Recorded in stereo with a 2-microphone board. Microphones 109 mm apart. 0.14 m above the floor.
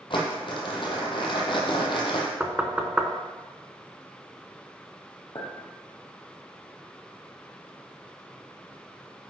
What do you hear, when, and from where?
0.1 s crumpling: 50° left (ahead or behind), 1.6 m
2.4 s knocking: 10° right (ahead or behind), 0.8 m
5.3 s a clink: 55° left (ahead or behind), 2.5 m